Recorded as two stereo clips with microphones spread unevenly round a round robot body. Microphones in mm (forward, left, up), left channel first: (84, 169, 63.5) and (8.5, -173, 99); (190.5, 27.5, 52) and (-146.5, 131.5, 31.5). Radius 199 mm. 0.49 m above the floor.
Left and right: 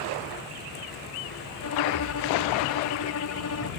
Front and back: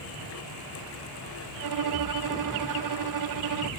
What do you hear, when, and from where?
1.6 s a violin: 130° left